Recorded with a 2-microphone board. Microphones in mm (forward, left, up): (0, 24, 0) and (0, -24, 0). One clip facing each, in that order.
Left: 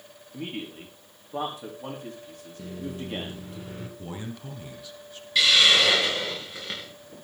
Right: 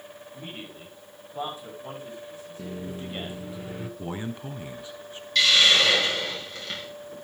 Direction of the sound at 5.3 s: 10° left (ahead or behind).